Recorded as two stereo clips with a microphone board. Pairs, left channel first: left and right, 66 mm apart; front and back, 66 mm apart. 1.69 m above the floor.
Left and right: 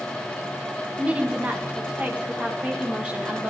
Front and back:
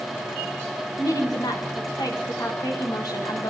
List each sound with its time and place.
1.0 s a woman speaking: 20° right, 2.5 m